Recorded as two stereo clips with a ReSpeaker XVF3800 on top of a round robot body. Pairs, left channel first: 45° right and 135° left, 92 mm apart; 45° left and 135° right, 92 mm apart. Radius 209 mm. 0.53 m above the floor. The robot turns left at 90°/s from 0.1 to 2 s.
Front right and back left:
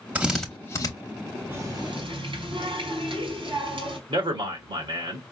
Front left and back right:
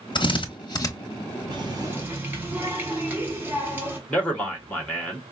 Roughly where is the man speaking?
Behind left.